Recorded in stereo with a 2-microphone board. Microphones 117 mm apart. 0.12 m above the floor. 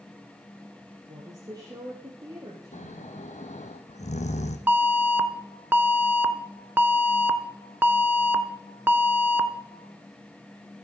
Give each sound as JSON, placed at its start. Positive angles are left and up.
{"t": 1.1, "sound": "a woman speaking", "side_deg": -35, "distance_m": 2.5}
{"t": 2.7, "sound": "snoring", "side_deg": 80, "distance_m": 1.3}
{"t": 4.7, "sound": "an alarm", "side_deg": -15, "distance_m": 0.8}